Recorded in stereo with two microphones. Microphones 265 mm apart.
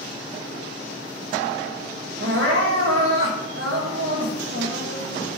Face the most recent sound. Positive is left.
turn(degrees=-50)  # may be behind; listen again after turning